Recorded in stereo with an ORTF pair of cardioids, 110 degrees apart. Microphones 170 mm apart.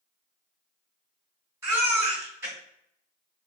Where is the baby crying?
20° right, 1.6 m.